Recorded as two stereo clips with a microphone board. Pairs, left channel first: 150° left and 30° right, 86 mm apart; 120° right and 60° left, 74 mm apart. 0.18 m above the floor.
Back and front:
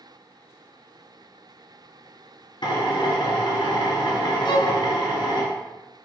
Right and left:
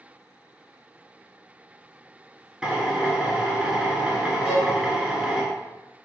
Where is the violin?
140° left, 1.3 m.